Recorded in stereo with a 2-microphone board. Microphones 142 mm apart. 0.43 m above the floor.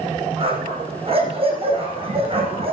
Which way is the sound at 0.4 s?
40° right (ahead or behind).